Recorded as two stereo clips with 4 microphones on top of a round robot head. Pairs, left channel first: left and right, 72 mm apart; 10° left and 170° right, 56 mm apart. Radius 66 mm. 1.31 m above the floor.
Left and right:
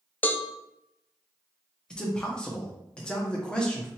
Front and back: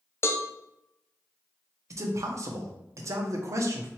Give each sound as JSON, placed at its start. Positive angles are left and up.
{"t": 0.2, "sound": "a cowbell", "azimuth_deg": 30, "distance_m": 0.5}
{"t": 1.9, "sound": "a man speaking", "azimuth_deg": 165, "distance_m": 0.8}